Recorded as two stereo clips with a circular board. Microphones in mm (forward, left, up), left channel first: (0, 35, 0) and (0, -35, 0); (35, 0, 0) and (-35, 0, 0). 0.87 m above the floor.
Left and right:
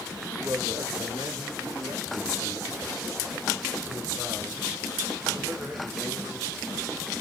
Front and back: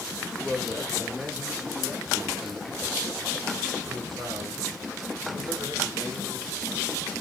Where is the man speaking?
70° right, 1.1 m; by 6.7 s 155° right, 4.5 m.